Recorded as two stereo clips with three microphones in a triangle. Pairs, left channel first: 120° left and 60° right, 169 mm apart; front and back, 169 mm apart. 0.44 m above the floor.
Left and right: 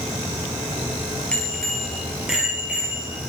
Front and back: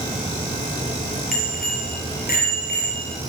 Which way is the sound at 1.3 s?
35° left.